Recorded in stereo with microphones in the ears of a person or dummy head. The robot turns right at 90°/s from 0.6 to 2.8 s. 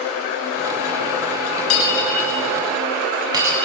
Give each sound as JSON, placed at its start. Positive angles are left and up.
{"t": 1.7, "sound": "breaking glass", "side_deg": 80, "distance_m": 7.0}